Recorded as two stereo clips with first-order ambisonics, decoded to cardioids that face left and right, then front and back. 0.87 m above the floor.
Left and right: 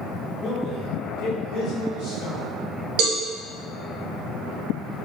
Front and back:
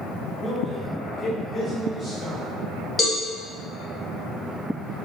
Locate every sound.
0.4 s a man speaking: 100° left, 0.6 m
3.0 s a cowbell: 75° right, 0.8 m